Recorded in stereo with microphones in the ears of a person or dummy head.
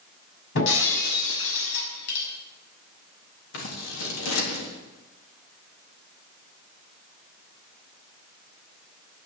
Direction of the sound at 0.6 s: 70° left (ahead or behind).